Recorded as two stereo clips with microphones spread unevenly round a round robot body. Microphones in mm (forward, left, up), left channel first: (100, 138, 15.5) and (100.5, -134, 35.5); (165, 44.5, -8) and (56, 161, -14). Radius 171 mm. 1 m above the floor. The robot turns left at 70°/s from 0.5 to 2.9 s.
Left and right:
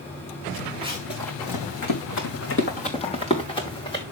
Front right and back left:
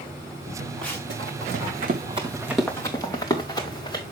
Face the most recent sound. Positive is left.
turn(degrees=15)